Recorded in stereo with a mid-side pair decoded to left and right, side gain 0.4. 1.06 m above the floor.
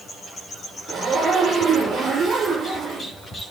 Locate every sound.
0.9 s a zipper: 70° right, 6.5 m